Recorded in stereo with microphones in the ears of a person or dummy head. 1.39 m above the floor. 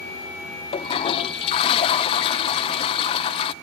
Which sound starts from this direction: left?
A toilet flushing, at 0.7 s.